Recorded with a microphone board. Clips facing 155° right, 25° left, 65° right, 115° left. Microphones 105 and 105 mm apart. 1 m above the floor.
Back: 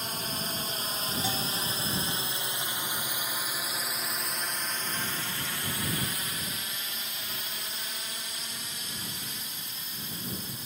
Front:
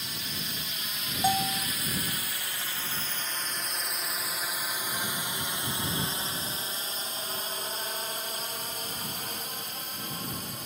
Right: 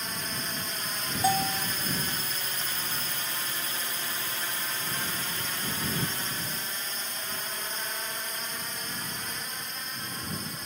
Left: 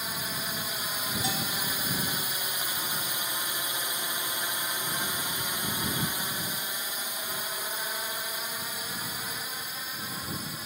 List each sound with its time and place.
0.0 s a drone: 170° right; by 10.7 s 30° left
1.2 s a bell: 25° right